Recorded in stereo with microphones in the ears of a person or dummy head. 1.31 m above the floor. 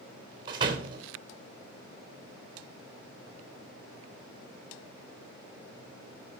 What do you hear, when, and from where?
0.5 s a door slam: 30° right (ahead or behind), 3 m